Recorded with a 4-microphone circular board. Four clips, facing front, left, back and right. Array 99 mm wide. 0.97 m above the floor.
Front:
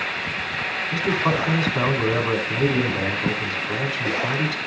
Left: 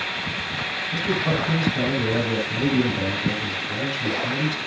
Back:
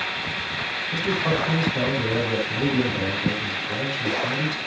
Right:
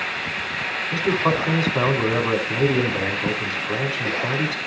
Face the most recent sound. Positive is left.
turn(degrees=-65)